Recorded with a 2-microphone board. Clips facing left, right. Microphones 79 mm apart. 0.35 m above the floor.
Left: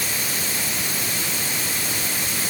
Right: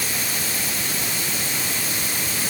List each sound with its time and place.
Only background noise.